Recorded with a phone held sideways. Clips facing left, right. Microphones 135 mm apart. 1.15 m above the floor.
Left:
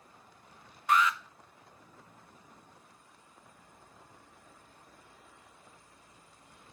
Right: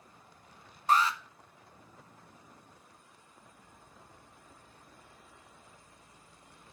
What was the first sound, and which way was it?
An alarm, 30° right (ahead or behind).